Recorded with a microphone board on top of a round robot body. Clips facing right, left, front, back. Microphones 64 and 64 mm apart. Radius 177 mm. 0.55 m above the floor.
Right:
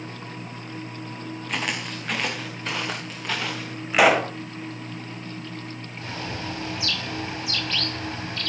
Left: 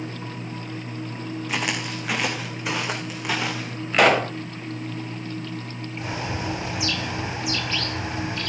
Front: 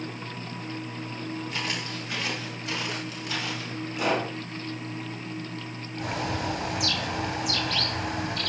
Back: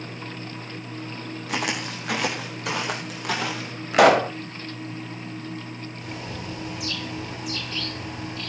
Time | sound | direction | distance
1.5 | footsteps | 175° left | 3.5 m
3.9 | a pop | 175° right | 1.3 m
6.0 | a bird | 20° left | 3 m